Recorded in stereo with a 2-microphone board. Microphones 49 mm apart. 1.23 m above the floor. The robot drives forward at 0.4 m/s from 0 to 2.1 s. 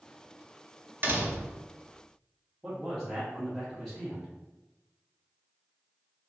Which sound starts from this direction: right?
A door slam, at 1.0 s.